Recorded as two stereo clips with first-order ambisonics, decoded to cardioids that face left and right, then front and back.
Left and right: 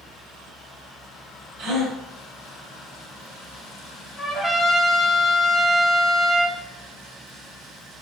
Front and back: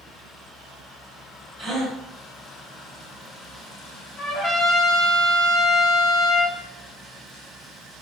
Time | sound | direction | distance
1.6 | a gasp | 105° right | 1.1 m
4.2 | a trumpet | 30° left | 0.8 m